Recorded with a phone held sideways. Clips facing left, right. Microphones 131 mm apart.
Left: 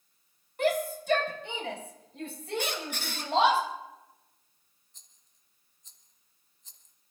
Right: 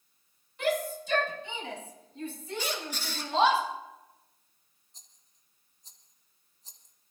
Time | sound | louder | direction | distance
0.6 | a shout | left 2 dB | 50° left (ahead or behind) | 4.5 m
2.6 | a squeak | right 1 dB | 60° left (ahead or behind) | 2 m
4.9 | a rattle | right 4 dB | 35° right (ahead or behind) | 1.4 m